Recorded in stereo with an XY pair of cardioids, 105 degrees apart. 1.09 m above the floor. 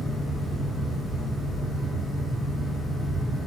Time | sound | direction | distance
0.0 | a fan | 10° left | 1.5 m